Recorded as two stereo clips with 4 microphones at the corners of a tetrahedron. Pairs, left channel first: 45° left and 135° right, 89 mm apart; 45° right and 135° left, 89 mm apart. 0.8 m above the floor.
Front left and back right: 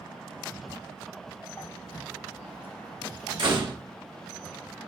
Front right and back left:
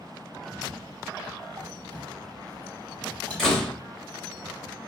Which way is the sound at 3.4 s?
130° right.